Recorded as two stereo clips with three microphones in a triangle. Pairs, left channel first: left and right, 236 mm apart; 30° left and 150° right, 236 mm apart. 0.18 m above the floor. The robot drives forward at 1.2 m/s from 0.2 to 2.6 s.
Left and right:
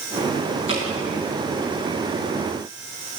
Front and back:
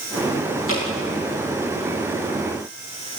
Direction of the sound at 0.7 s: 55° left.